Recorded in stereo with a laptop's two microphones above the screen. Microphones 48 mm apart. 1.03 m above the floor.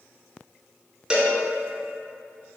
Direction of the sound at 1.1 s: 20° right (ahead or behind).